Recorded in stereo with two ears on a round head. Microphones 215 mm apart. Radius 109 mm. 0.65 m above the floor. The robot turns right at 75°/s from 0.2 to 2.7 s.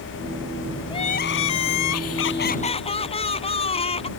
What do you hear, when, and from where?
0.9 s crying: 20° left; by 4.1 s 155° left